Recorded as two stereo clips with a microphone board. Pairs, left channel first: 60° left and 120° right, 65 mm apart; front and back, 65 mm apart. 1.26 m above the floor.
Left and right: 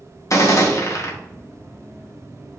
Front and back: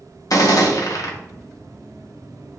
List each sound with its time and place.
0.3 s a gunshot: 25° left, 0.9 m